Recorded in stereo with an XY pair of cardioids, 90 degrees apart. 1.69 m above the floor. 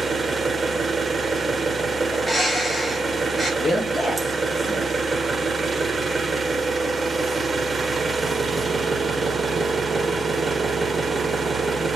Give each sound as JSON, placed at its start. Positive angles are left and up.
{"t": 0.0, "sound": "an engine running", "azimuth_deg": -35, "distance_m": 1.3}
{"t": 2.1, "sound": "a bird", "azimuth_deg": 0, "distance_m": 4.0}
{"t": 3.6, "sound": "a man speaking", "azimuth_deg": 5, "distance_m": 4.5}